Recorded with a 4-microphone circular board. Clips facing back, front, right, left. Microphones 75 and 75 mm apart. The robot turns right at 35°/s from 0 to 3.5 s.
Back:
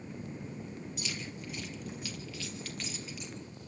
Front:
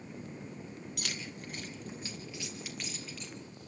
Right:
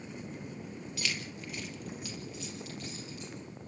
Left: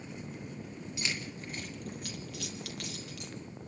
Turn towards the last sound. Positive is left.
turn(degrees=110)